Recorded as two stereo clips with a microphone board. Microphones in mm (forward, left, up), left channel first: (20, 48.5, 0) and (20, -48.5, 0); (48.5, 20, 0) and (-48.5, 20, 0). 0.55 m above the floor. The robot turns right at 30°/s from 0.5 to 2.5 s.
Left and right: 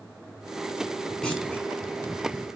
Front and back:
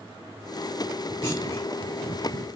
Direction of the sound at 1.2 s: 15° left.